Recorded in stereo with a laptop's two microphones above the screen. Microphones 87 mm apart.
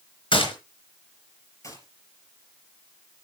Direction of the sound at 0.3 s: 80° left.